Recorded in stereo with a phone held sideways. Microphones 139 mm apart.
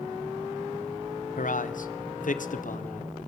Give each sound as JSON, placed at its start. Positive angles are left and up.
{"t": 1.4, "sound": "a man speaking", "side_deg": 70, "distance_m": 0.7}